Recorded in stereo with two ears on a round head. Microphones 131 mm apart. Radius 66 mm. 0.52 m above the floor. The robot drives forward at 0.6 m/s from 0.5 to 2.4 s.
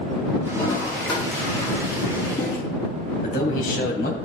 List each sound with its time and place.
0.5 s a toilet flushing: 35° left (ahead or behind), 5.5 m; by 2.6 s 30° left (ahead or behind), 6.5 m
3.2 s a man speaking: 65° left (ahead or behind), 3.5 m